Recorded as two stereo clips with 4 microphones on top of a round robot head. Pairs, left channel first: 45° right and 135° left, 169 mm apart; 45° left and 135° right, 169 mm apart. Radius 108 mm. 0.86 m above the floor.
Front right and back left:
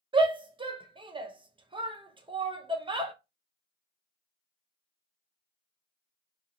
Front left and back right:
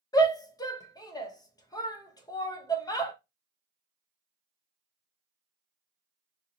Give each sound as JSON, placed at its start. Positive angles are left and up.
{"t": 0.1, "sound": "a shout", "azimuth_deg": 95, "distance_m": 0.8}